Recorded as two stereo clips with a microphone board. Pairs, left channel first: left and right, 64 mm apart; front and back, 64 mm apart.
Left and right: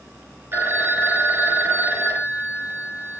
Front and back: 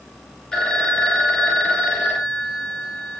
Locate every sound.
0.5 s a phone ringing: 70° right, 0.7 m